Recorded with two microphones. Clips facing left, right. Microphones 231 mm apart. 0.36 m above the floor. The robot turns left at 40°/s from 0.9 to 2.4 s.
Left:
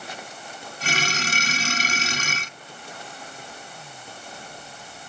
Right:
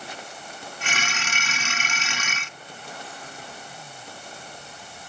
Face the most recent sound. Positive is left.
No sound to turn to.